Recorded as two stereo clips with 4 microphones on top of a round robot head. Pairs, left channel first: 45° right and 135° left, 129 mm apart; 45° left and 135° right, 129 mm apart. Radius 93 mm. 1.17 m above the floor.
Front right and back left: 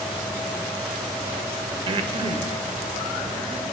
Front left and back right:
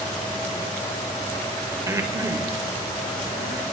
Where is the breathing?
165° left, 0.8 m.